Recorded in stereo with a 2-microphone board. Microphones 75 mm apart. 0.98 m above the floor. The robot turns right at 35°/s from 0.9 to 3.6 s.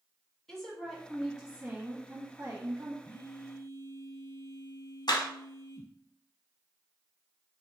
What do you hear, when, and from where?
0.5 s a woman speaking: 175° left, 1.6 m; by 3.0 s 115° right, 1.6 m
3.0 s a phone buzzing: 40° left (ahead or behind), 0.9 m
5.1 s a clap: 65° left (ahead or behind), 1.0 m